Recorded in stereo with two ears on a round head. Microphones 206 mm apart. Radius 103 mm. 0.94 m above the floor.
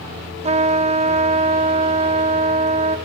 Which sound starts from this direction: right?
A trumpet, at 0.4 s.